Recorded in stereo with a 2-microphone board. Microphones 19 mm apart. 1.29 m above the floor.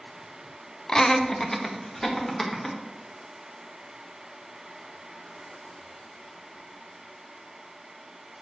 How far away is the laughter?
About 0.6 m.